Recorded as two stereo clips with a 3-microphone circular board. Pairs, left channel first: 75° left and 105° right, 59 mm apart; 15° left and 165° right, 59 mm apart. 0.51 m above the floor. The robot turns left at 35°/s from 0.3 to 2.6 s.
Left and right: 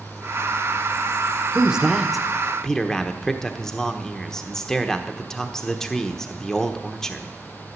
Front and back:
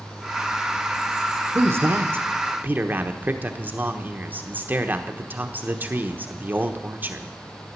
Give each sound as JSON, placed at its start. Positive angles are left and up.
{"t": 1.6, "sound": "a man speaking", "azimuth_deg": -170, "distance_m": 1.1}